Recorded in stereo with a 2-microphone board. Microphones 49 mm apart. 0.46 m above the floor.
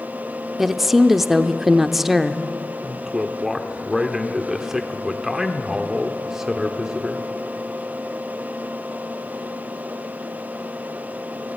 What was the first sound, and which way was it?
A woman speaking, 5° right (ahead or behind).